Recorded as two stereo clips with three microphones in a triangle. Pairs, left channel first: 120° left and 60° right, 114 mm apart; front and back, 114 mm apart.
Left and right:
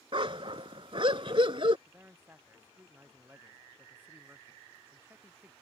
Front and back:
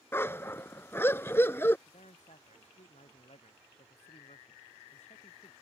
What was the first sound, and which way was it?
A dog barking, 60° right.